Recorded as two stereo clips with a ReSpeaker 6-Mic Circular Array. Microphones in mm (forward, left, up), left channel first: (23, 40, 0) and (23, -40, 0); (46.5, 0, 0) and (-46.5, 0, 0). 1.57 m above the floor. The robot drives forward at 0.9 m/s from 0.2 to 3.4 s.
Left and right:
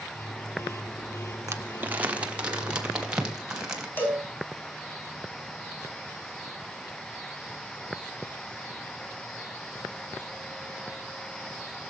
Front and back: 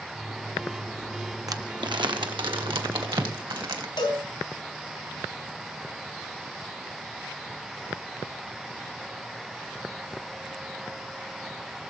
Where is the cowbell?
30° left, 4 m.